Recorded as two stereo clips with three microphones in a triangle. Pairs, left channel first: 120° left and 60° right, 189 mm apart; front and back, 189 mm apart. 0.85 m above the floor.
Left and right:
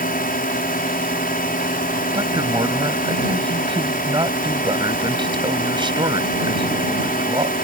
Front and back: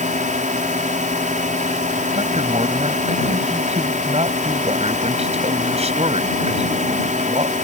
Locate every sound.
0.0 s a drone: 145° left
2.1 s a man speaking: 125° right